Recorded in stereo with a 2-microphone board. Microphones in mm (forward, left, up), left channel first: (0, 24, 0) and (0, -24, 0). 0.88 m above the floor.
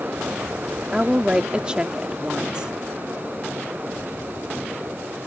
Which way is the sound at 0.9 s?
25° right (ahead or behind).